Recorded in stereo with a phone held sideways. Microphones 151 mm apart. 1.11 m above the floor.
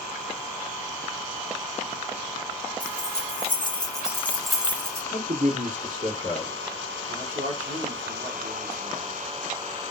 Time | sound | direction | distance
2.8 | keys jangling | 50° left (ahead or behind) | 1.2 m
5.1 | a man speaking | 75° right (ahead or behind) | 1.9 m
7.1 | a man speaking | 60° right (ahead or behind) | 1.0 m